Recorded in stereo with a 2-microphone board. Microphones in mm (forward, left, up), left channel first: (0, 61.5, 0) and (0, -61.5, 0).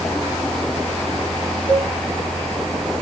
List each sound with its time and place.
1.7 s a cowbell: 50° left (ahead or behind), 5 m